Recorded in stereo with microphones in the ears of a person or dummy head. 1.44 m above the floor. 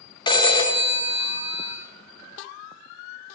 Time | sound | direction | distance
0.3 | a phone ringing | 25° left (ahead or behind) | 0.6 m